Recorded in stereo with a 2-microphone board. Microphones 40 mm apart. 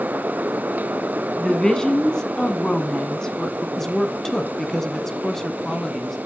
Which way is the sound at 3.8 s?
15° left (ahead or behind).